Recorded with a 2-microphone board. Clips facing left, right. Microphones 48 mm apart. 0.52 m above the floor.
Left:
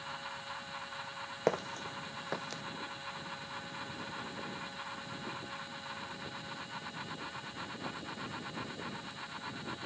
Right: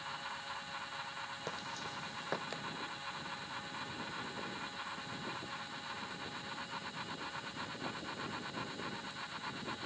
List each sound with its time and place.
1.5 s footsteps: 55° left (ahead or behind); by 2.6 s 15° right (ahead or behind)